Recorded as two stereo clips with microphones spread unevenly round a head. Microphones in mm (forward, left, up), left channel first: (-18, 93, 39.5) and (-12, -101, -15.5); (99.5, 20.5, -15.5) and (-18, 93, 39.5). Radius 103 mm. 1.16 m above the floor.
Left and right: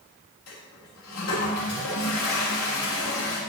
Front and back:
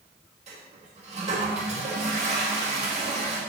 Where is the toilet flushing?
105° left, 5.5 m.